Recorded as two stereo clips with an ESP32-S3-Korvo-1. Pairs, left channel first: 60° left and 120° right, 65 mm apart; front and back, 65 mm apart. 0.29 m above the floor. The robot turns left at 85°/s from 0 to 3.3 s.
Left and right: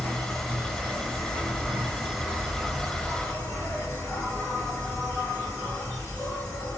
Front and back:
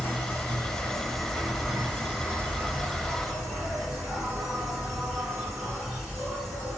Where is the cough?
No cough in this recording.